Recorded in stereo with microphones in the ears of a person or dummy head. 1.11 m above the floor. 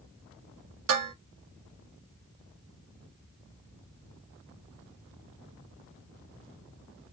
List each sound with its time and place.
0.9 s dishes clattering: 80° right, 0.9 m